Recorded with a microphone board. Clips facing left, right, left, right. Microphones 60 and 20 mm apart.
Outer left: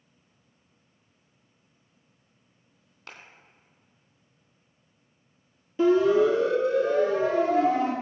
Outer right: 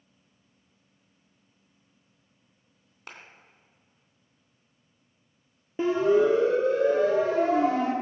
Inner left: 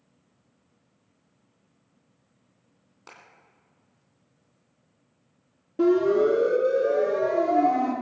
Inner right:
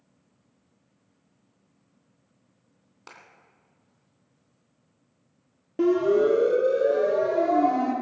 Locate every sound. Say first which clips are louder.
3.1 s a clap: outer right 1 dB, inner right 1 dB; 20° right (ahead or behind), 3 m
5.8 s a siren: outer left 2 dB, inner left 1 dB; 30° right (ahead or behind), 2.5 m; by 7.9 s 55° right (ahead or behind), 5 m